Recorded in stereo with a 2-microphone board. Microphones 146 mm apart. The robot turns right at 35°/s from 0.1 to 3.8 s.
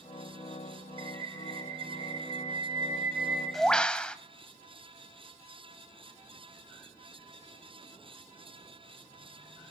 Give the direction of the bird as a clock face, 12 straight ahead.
3 o'clock.